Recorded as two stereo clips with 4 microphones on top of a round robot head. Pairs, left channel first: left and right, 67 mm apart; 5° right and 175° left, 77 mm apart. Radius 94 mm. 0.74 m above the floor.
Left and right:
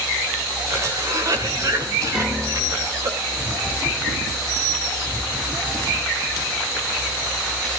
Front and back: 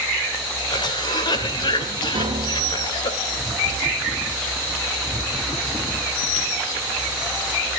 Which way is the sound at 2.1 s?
170° right.